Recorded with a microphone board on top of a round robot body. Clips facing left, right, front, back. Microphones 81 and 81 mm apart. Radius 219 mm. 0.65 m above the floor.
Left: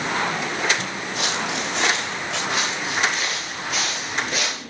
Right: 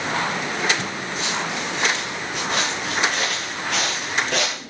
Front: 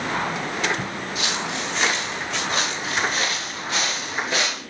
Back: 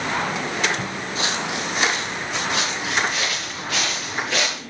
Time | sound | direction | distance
1.1 | footsteps | 120° left | 1.2 m
2.5 | footsteps | 55° right | 4.5 m